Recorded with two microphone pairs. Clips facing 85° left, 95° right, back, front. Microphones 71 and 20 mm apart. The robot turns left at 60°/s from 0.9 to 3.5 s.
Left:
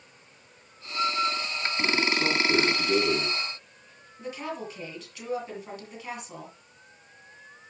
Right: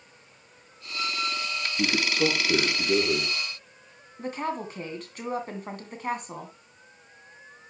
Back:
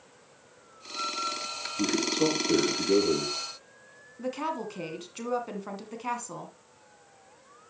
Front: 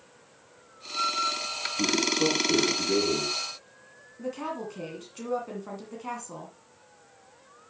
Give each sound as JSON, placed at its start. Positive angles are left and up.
{"t": 1.8, "sound": "a man speaking", "azimuth_deg": -105, "distance_m": 5.0}
{"t": 4.2, "sound": "a woman speaking", "azimuth_deg": -125, "distance_m": 2.0}